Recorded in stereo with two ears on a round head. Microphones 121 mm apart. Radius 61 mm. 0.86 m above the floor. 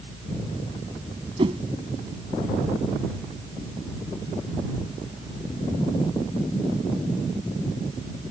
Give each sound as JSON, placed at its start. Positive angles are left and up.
{"t": 1.4, "sound": "a whoosh", "side_deg": -40}